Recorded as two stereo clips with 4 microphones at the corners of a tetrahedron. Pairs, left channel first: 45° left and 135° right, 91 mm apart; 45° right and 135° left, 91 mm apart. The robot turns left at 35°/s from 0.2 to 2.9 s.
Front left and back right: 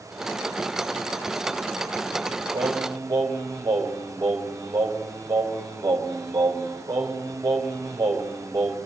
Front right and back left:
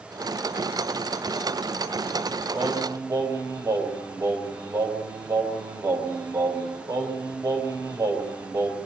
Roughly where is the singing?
Behind.